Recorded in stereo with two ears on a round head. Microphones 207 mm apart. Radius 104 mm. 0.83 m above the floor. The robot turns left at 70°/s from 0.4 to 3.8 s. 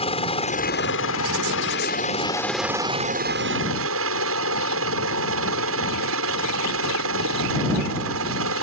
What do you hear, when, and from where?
0.0 s a helicopter: 150° left; by 8.6 s 85° right